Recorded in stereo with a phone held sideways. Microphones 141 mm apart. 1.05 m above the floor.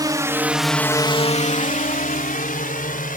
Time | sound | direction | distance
0.0 | a drone | 30° right (ahead or behind) | ?